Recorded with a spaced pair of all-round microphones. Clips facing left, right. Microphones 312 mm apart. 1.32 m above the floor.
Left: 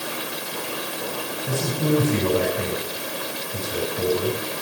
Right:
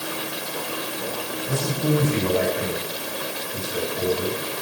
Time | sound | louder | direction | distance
1.5 | a man speaking | left 1 dB | 55° left (ahead or behind) | 7.5 m